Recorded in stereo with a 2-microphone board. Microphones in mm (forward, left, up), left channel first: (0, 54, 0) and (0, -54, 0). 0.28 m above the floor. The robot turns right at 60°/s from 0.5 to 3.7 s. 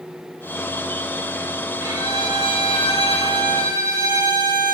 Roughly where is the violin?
Behind right.